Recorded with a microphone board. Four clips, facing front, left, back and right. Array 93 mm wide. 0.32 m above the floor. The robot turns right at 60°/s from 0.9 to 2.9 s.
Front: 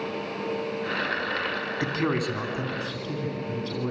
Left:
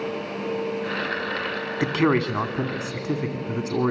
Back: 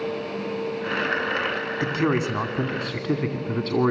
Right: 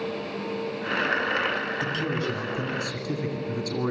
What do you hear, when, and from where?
1.8 s a man speaking: 90° left, 2 m; by 3.9 s 155° left, 2 m